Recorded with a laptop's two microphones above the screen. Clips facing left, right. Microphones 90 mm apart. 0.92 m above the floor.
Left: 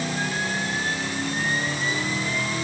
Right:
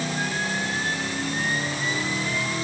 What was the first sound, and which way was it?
Only background noise.